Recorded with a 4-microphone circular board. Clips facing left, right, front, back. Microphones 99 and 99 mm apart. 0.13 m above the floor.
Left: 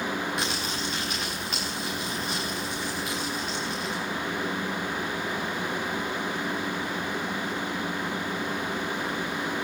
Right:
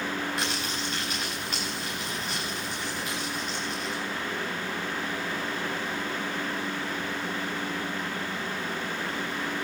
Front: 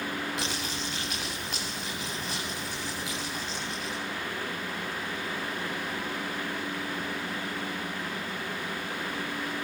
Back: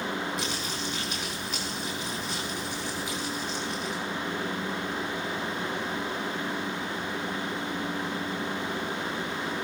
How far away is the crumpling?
About 7.5 m.